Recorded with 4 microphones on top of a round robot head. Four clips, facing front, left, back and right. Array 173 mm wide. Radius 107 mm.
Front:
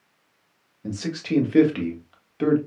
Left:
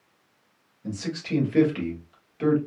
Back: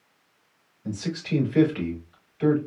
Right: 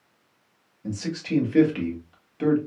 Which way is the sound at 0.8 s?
10° right.